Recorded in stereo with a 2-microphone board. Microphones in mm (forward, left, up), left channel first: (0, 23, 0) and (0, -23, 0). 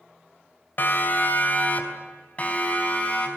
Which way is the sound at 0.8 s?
45° left (ahead or behind).